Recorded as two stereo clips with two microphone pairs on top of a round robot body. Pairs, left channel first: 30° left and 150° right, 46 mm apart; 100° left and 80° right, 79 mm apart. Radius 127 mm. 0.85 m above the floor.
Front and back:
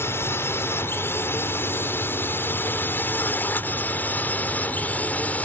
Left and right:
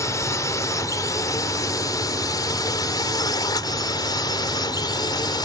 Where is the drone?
60° left; by 5.5 s 85° left.